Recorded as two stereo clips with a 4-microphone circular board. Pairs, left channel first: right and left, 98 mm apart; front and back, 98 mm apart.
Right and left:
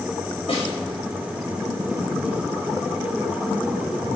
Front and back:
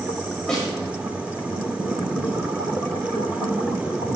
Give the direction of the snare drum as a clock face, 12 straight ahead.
3 o'clock.